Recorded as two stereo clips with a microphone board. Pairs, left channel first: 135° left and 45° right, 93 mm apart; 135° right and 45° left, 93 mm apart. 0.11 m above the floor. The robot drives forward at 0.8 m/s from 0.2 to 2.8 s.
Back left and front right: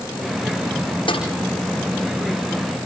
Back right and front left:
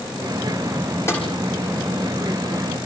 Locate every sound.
1.1 s a snare drum: 160° left, 6.5 m